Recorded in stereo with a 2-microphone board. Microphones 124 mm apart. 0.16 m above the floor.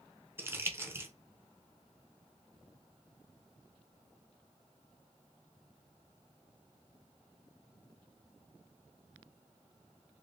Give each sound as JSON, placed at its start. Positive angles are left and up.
{"t": 0.4, "sound": "crumpling", "side_deg": -20, "distance_m": 0.5}